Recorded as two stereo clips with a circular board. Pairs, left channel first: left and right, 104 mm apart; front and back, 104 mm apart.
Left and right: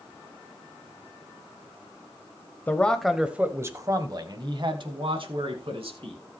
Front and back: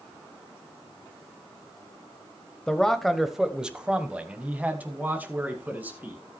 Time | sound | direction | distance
2.7 | a man speaking | 70° left | 1.0 m